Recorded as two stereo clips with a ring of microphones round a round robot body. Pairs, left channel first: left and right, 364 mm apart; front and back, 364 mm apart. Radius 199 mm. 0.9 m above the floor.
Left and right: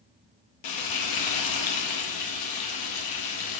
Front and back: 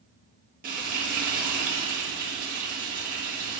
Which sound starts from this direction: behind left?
Frying, at 0.6 s.